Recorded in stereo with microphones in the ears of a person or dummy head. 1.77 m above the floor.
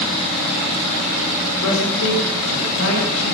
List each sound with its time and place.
1.6 s a man speaking: 75° left (ahead or behind), 5.5 m; by 3.4 s 80° left, 8 m